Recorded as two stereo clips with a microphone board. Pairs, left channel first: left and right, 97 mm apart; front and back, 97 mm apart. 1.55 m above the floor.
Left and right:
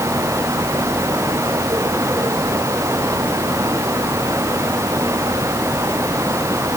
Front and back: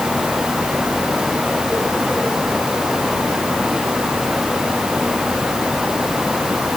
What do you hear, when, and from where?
Only background noise.